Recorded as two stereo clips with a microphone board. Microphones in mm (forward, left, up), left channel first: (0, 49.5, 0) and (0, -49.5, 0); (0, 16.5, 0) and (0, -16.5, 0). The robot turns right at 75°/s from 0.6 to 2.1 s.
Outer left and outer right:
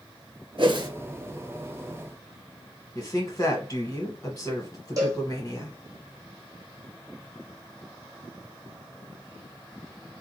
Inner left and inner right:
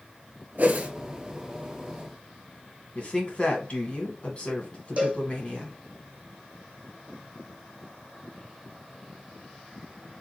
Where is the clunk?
I don't hear a clunk.